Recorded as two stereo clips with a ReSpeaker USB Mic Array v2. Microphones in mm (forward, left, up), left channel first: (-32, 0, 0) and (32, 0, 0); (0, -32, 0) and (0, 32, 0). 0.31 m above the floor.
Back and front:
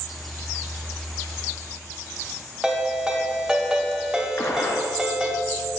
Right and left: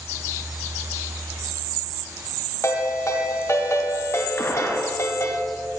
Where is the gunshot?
140° right, 1.3 m.